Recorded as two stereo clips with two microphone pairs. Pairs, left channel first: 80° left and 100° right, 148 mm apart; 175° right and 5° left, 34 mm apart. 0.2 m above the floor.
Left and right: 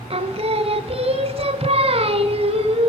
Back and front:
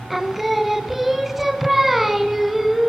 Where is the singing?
70° right, 0.8 m.